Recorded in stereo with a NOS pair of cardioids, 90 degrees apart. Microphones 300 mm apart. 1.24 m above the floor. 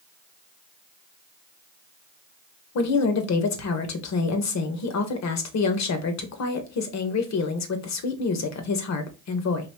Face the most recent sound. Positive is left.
turn(degrees=60)